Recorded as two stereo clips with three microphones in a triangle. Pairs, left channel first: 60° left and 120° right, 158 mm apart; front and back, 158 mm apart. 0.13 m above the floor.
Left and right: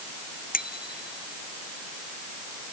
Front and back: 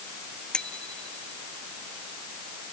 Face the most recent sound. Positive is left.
turn(degrees=85)